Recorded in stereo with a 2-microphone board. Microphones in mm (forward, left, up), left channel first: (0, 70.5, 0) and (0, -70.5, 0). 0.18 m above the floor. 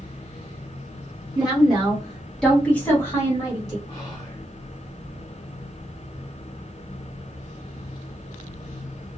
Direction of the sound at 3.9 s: 25° left (ahead or behind).